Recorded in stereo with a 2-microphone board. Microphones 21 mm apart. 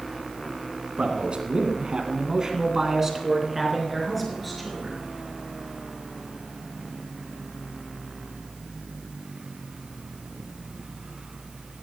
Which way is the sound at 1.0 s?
60° right (ahead or behind).